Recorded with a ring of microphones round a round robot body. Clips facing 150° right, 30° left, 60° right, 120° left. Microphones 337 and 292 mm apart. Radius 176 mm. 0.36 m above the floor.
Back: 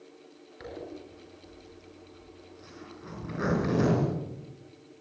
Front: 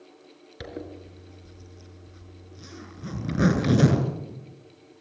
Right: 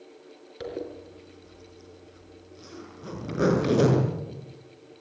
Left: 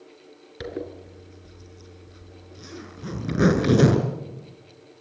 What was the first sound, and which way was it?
A zipper, 65° left.